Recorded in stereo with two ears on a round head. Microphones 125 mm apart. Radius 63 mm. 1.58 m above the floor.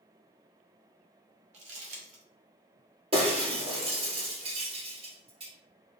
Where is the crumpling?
50° right (ahead or behind), 1.2 m.